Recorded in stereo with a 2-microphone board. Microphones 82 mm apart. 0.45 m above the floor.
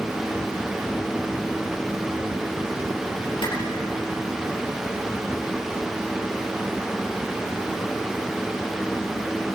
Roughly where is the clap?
Left.